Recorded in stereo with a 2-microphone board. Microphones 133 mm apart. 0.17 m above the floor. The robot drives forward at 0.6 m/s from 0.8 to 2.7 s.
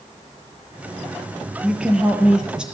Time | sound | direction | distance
1.6 | a woman speaking | 5° right (ahead or behind) | 4 m